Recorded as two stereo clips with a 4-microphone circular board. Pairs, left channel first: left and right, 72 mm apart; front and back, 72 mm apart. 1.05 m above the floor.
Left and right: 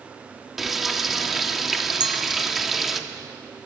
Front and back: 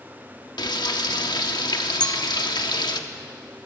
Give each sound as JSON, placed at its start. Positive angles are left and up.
{"t": 0.6, "sound": "frying", "azimuth_deg": -5, "distance_m": 1.4}
{"t": 2.0, "sound": "a clink", "azimuth_deg": -75, "distance_m": 0.9}